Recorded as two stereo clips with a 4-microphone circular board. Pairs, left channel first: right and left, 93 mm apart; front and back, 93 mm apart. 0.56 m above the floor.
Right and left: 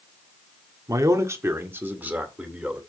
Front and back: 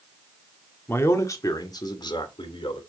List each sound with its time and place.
0.9 s a man speaking: 55° left, 1.4 m; by 2.8 s 10° left, 2 m